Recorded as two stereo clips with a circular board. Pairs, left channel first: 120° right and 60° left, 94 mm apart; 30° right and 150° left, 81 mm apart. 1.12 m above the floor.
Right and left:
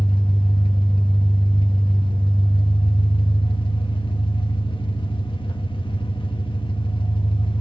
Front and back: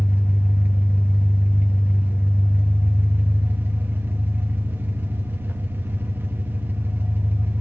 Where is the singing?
No singing in this recording.